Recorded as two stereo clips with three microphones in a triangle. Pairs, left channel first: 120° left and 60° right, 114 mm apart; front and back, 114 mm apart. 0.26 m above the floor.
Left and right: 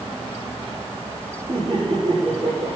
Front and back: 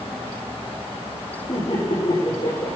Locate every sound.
1.5 s laughter: 25° right, 7 m